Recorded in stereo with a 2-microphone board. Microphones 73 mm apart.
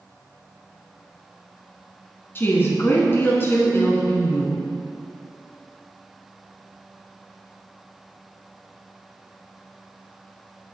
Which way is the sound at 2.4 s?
35° left (ahead or behind).